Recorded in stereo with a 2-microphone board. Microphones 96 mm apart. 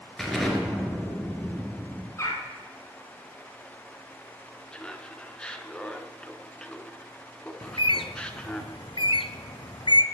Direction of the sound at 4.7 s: 10° left (ahead or behind).